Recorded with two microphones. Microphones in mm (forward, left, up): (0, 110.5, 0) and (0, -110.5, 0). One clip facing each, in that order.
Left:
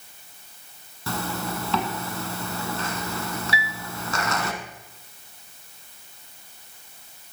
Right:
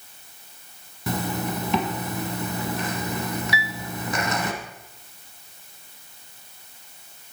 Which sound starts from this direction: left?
A piano, at 3.5 s.